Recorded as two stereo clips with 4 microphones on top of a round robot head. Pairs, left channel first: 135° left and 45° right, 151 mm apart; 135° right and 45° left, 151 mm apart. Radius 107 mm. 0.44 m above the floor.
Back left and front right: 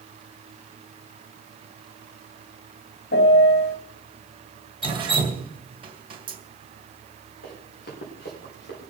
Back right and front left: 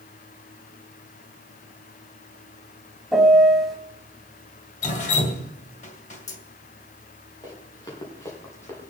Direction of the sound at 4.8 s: 100° right.